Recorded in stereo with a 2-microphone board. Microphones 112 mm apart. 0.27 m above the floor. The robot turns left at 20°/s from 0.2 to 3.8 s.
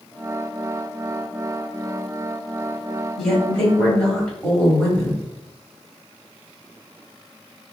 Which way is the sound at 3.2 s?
5° left (ahead or behind).